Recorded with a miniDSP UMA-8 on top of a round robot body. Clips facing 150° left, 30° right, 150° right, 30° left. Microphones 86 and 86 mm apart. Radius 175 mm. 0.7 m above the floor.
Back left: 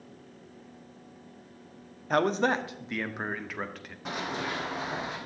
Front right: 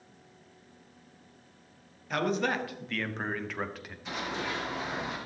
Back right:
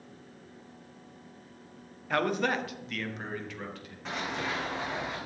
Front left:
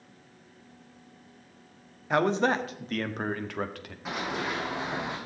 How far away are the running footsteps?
About 3.5 m.